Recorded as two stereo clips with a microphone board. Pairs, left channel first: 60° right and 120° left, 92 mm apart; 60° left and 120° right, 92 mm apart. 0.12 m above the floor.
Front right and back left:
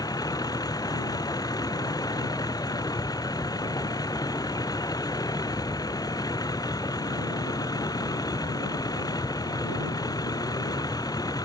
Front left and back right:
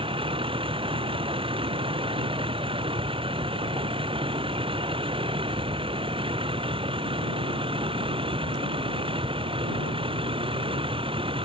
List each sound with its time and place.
0.0 s a vehicle: 105° right